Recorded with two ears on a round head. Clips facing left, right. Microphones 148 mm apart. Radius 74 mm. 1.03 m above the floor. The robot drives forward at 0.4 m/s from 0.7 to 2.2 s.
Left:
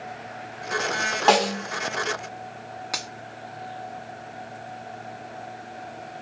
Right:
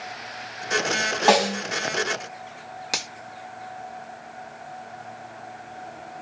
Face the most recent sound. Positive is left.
turn(degrees=-30)  # may be behind; listen again after turning